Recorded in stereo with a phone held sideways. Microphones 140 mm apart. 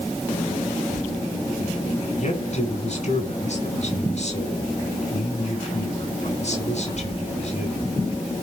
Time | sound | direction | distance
2.2 | a man speaking | 60° left (ahead or behind) | 5 m